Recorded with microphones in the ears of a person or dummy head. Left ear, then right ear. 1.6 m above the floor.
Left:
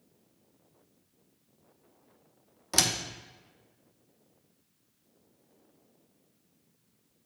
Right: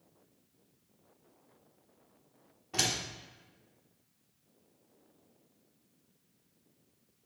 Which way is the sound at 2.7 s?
60° left (ahead or behind).